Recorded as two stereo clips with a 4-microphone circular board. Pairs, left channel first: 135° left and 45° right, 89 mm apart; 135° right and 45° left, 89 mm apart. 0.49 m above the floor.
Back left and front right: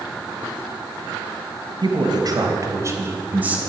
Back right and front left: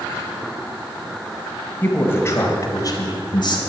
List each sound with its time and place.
1.8 s a man speaking: 70° right, 3 m; by 3.6 s 120° right, 3 m